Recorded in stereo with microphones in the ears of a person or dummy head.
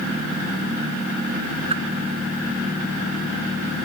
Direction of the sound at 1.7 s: 35° right (ahead or behind).